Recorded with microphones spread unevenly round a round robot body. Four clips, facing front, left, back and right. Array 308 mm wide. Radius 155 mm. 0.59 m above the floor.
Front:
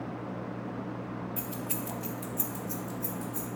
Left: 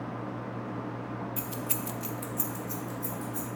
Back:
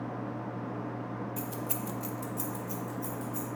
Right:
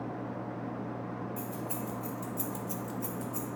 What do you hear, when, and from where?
1.4 s keys jangling: 95° left, 0.8 m; by 3.5 s 75° right, 0.9 m